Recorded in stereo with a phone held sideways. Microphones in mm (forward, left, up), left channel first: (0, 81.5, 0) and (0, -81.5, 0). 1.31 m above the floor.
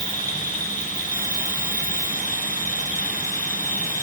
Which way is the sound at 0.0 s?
55° left (ahead or behind).